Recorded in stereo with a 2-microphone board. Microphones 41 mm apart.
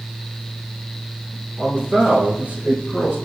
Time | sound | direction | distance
1.6 | a man speaking | 20° right (ahead or behind) | 1.4 m